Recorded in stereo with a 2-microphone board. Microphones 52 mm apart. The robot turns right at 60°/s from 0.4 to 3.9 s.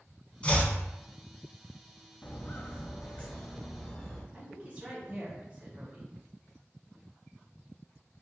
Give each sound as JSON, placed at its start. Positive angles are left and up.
{"t": 0.4, "sound": "chopping", "side_deg": 25, "distance_m": 0.6}
{"t": 2.2, "sound": "footsteps", "side_deg": 35, "distance_m": 0.6}
{"t": 4.3, "sound": "a woman speaking", "side_deg": -30, "distance_m": 1.0}